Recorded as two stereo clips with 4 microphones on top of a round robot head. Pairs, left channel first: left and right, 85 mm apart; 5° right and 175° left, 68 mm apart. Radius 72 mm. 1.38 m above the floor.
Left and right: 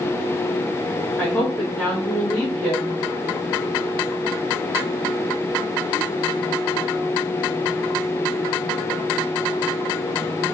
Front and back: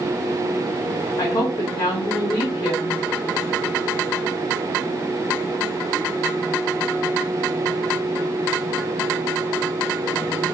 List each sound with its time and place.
1.2 s a woman speaking: 10° left, 1.8 m